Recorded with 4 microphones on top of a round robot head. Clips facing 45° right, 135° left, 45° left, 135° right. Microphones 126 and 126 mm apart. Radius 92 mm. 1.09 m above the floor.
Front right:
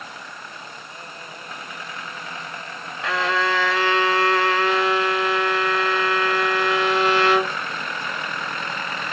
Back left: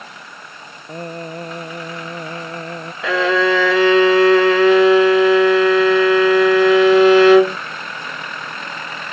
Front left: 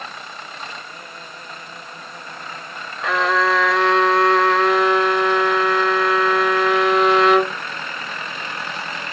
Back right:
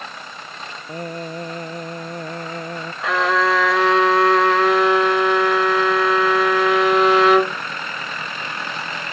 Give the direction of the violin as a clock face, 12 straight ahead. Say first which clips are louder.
Back left 7 dB, even; 7 o'clock.